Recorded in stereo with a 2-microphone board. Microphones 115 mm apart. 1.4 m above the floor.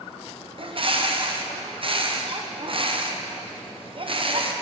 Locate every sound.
0.6 s a bird: 50° right (ahead or behind), 1.0 m